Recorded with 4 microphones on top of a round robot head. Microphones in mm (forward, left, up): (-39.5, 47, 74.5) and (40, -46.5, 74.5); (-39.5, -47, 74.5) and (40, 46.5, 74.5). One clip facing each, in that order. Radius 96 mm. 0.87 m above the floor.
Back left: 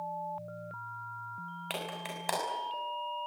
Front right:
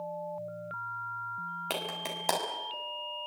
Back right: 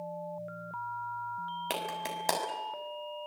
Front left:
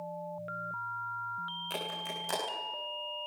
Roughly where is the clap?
Right.